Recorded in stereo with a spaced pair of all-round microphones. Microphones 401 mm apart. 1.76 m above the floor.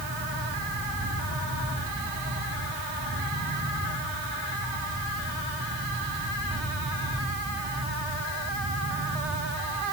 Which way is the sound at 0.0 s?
50° right (ahead or behind).